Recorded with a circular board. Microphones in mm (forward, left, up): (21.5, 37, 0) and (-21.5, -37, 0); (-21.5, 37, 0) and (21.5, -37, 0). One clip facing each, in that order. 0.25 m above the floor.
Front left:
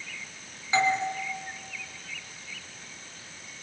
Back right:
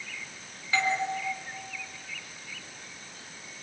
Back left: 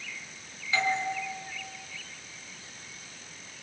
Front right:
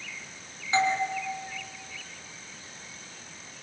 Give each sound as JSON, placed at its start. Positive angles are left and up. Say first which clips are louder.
{"t": 0.7, "sound": "a doorbell", "louder": "front left 3 dB, front right 3 dB", "azimuth_deg": -5, "distance_m": 3.5}